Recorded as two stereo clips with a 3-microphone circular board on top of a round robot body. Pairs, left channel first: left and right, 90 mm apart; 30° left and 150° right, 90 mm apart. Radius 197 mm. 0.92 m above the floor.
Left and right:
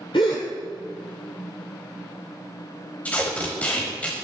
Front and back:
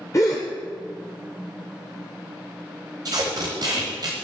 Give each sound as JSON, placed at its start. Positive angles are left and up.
{"t": 0.1, "sound": "a gasp", "azimuth_deg": 90, "distance_m": 0.6}
{"t": 3.0, "sound": "tape being pulled", "azimuth_deg": 160, "distance_m": 1.2}